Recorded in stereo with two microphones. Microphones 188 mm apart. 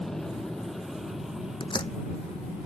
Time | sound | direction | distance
0.0 | an aircraft | centre (ahead or behind) | ?
1.6 | a door slam | 25° left (ahead or behind) | ?